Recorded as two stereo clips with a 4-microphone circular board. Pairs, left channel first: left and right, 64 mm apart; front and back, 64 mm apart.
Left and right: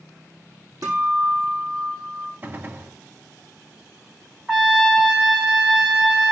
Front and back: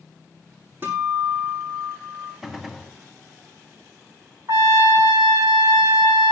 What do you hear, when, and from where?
0.8 s a guitar: 125° right, 6 m
2.4 s a gunshot: 100° right, 0.8 m
4.5 s a trumpet: 160° right, 3 m